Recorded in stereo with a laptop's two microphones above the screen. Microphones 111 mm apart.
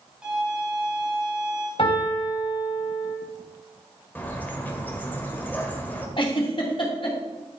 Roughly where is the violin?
Centre.